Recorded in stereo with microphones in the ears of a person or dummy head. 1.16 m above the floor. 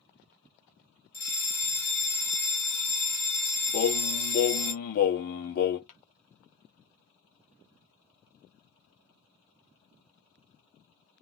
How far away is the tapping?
About 1.3 m.